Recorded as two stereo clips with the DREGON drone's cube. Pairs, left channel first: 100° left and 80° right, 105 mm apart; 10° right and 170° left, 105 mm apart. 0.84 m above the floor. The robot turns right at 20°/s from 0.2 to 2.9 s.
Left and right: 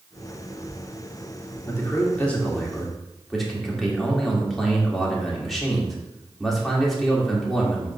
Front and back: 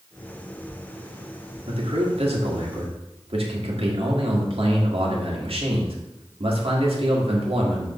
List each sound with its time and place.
1.7 s a man speaking: 165° left, 1.9 m; by 7.9 s 170° right, 1.9 m